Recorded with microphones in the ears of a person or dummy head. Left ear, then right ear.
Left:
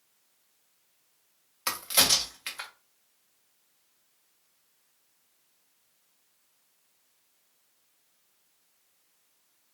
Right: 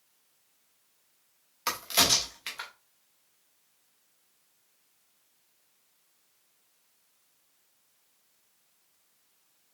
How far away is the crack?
About 0.7 m.